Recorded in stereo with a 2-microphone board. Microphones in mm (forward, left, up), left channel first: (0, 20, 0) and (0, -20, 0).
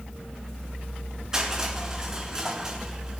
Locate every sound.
1.3 s crushing: 15° right (ahead or behind), 2.5 m